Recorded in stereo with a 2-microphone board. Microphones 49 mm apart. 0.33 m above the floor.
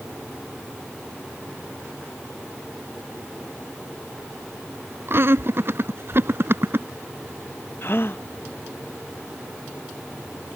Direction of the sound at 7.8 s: 50° left (ahead or behind).